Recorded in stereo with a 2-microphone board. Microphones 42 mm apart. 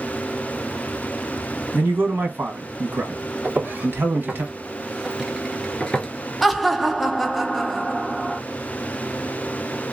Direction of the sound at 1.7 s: 60° right (ahead or behind).